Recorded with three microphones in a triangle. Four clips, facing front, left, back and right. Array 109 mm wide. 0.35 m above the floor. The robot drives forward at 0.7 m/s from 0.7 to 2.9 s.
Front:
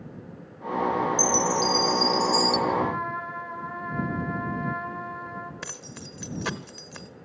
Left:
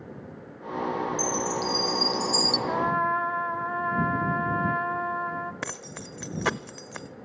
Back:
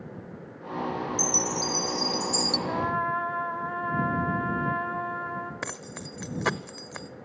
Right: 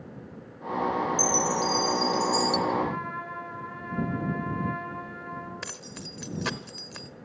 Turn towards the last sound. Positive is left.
turn(degrees=130)